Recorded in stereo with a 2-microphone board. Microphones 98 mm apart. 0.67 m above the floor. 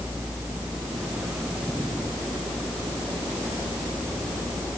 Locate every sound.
Only background noise.